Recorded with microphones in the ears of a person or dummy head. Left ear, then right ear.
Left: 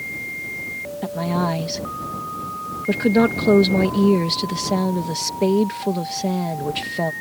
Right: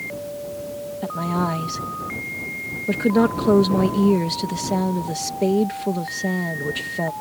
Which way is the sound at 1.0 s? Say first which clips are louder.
Left 1 dB; 5° left (ahead or behind).